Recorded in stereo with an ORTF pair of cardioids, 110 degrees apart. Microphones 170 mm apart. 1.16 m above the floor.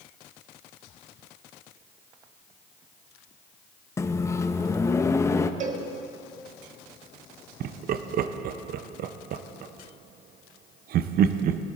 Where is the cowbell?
50° right, 1.4 m.